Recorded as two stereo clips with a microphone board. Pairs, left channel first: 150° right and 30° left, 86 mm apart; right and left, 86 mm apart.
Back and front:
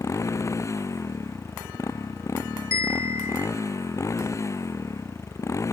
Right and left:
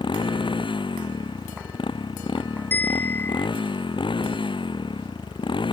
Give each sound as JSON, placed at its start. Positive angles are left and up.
{"t": 0.0, "sound": "a motorcycle", "azimuth_deg": -95}
{"t": 2.7, "sound": "a bell", "azimuth_deg": -25}